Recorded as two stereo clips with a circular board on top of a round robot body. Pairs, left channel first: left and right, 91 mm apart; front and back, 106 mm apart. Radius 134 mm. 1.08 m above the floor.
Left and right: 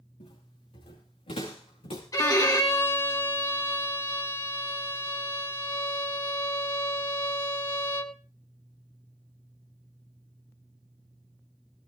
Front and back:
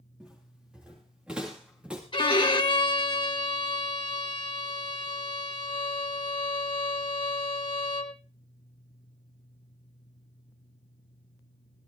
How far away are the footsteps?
About 7.5 m.